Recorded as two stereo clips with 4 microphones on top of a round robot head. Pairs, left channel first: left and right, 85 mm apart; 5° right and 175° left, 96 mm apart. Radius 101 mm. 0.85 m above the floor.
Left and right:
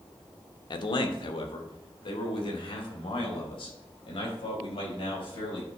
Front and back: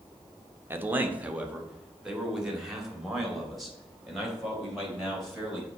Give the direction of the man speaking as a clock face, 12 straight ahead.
8 o'clock.